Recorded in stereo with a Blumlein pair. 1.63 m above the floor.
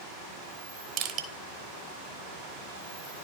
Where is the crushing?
40° right, 0.9 m.